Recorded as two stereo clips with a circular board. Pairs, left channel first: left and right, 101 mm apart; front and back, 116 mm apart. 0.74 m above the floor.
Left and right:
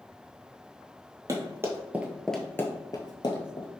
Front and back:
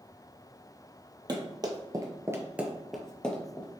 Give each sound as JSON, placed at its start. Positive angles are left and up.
{"t": 1.3, "sound": "running footsteps", "azimuth_deg": -140, "distance_m": 1.1}